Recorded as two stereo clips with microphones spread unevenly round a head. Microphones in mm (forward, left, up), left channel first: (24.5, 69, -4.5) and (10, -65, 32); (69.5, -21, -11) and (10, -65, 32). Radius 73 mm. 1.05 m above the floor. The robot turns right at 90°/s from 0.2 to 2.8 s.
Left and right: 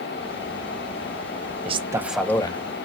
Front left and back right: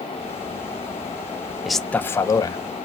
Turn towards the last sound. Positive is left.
turn(degrees=55)